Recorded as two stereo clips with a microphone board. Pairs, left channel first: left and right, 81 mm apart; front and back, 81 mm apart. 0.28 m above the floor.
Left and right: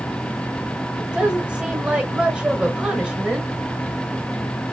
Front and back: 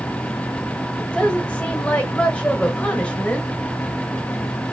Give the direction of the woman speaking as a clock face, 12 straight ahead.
1 o'clock.